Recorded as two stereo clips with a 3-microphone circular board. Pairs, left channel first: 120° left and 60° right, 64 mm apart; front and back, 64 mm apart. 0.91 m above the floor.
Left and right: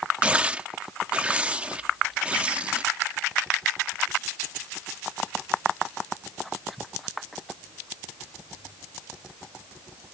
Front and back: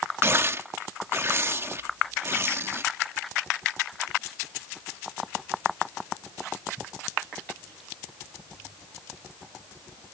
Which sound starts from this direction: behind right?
Tearing paper, at 0.2 s.